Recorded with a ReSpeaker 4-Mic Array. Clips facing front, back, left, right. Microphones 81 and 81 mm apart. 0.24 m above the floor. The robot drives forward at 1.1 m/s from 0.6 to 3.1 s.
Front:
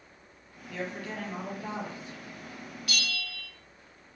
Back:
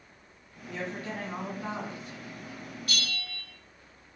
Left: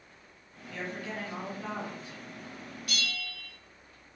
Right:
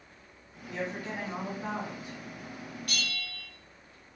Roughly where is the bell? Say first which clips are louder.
Front 2 dB, left 2 dB; behind right.